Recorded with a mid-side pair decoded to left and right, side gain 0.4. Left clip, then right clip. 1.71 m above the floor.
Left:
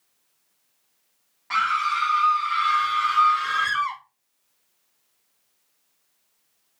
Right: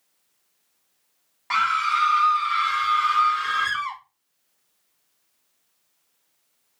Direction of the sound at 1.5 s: 60° right.